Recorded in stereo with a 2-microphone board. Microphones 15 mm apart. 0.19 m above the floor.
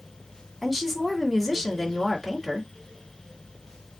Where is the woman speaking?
10° right (ahead or behind), 1.7 m.